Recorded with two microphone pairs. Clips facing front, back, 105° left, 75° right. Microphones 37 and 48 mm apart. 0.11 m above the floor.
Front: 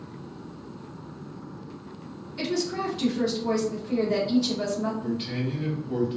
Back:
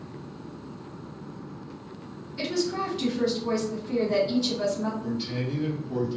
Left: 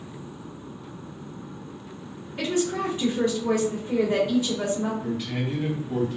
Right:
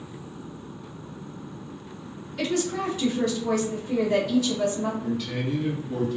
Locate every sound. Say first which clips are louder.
2.4 s a woman speaking: even, left 1 dB; 85° left, 1.7 m
5.0 s a man speaking: front 1 dB, even; 50° left, 1.6 m